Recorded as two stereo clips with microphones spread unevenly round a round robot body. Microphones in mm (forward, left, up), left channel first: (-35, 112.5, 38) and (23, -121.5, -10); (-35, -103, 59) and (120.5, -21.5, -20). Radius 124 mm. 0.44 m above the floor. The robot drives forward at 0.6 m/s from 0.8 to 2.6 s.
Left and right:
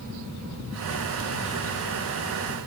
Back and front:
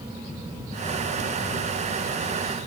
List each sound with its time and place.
Only background noise.